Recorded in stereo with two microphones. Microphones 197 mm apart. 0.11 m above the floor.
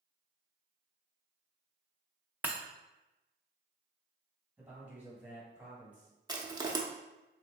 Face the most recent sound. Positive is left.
turn(degrees=-20)  # may be behind; listen again after turning